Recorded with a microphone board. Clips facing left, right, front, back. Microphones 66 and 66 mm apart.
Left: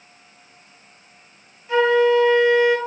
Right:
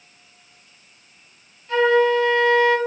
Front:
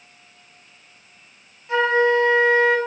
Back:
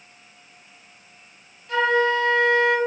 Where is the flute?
30° left, 0.6 m.